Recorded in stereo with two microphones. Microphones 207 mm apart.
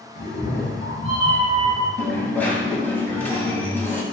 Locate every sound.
0.1 s a cat meowing: 50° left (ahead or behind), 1.2 m; by 1.9 s 5° left (ahead or behind), 1.6 m
2.0 s a dropped coin: 10° left (ahead or behind), 0.5 m